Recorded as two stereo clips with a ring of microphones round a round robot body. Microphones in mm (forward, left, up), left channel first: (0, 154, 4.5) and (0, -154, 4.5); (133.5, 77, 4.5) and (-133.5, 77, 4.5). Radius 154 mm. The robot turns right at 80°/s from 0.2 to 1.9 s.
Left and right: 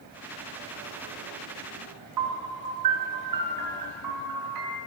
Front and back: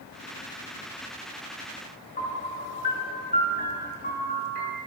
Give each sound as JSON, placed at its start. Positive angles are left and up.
{"t": 2.2, "sound": "a piano", "azimuth_deg": -65, "distance_m": 5.0}